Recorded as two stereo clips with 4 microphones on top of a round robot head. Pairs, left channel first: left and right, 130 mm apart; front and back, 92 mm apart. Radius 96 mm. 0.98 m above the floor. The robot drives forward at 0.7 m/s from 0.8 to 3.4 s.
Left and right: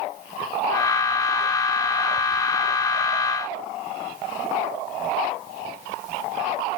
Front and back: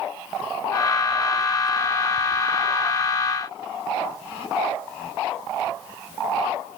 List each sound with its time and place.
Only background noise.